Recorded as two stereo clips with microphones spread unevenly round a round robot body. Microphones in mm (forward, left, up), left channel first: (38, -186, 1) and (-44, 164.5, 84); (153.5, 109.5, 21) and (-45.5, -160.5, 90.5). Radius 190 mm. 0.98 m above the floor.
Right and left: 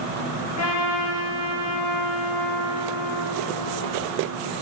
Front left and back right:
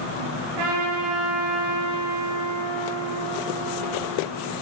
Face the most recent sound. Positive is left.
turn(degrees=-125)